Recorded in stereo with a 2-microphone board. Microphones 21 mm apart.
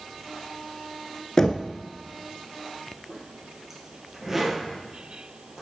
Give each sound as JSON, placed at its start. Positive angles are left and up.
{"t": 1.4, "sound": "knocking", "side_deg": 25, "distance_m": 0.8}
{"t": 3.1, "sound": "a zipper", "side_deg": -20, "distance_m": 2.5}